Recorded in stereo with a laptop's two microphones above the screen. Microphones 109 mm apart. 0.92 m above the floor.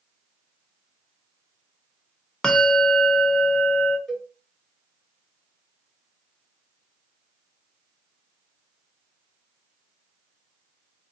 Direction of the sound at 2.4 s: 5° left (ahead or behind).